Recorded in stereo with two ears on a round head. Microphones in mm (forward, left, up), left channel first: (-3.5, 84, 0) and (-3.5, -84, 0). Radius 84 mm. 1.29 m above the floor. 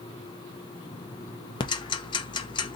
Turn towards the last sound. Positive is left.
turn(degrees=25)  # may be behind; listen again after turning